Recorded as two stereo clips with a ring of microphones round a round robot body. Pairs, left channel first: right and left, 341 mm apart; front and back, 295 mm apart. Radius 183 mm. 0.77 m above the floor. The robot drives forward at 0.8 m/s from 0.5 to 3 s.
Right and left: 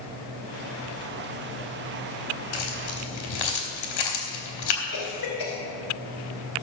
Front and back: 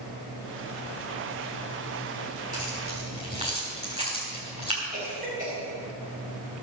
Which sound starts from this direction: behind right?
A cough, at 4.9 s.